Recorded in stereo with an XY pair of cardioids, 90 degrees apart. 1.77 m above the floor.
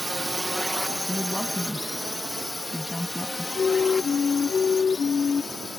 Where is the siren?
50° left.